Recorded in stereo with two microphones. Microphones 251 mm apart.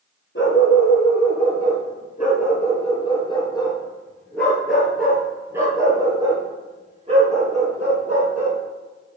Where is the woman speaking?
I don't hear a woman speaking.